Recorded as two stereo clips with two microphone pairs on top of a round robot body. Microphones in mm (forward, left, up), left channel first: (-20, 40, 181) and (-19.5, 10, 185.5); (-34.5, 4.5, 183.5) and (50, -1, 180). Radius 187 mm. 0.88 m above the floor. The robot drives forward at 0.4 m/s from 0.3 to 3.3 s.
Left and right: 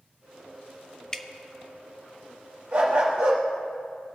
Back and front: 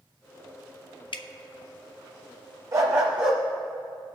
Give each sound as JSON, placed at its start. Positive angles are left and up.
{"t": 1.1, "sound": "dripping", "azimuth_deg": 155, "distance_m": 0.5}
{"t": 2.7, "sound": "a dog barking", "azimuth_deg": -60, "distance_m": 0.5}